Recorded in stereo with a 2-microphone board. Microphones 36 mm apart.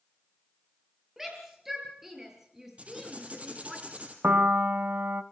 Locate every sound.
1.2 s a shout: 10° right (ahead or behind), 7 m; by 3.8 s 15° right (ahead or behind), 4.5 m
2.8 s writing: 35° right (ahead or behind), 4 m
4.2 s a piano: 55° right (ahead or behind), 1.0 m